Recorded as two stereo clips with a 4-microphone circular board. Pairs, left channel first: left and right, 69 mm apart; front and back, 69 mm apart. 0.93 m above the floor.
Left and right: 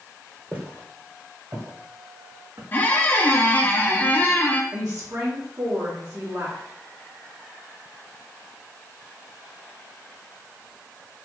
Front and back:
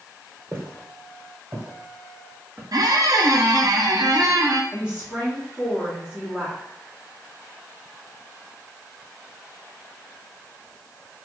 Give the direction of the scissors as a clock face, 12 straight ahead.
I don't hear scissors.